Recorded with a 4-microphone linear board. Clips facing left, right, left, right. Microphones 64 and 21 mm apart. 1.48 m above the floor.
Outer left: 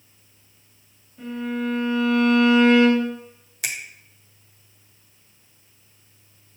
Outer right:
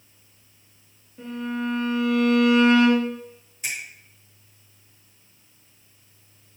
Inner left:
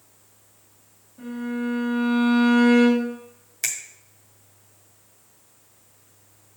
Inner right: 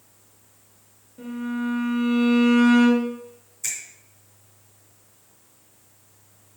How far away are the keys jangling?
I don't hear keys jangling.